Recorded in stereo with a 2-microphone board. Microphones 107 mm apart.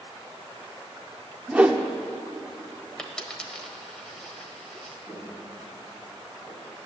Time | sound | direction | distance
1.5 | a whoosh | 10° right (ahead or behind) | 0.9 m
3.0 | a dropped coin | 10° left (ahead or behind) | 1.3 m
5.0 | footsteps | 5° right (ahead or behind) | 4.5 m